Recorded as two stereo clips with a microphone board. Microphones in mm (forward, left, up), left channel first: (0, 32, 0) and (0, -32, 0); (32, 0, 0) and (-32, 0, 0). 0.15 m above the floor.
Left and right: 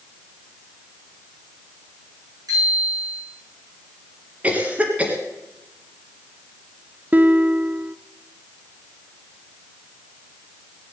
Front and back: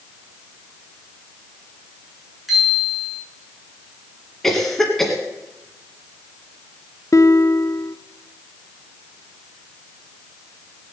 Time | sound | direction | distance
2.5 | a bicycle bell | 95° right | 9 m
4.4 | a cough | 75° right | 1.7 m
7.1 | a guitar | 30° right | 0.6 m